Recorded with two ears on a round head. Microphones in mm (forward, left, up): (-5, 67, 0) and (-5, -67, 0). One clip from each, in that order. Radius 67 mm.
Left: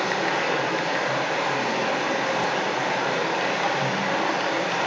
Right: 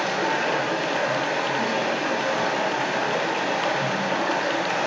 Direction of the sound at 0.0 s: 10° right (ahead or behind).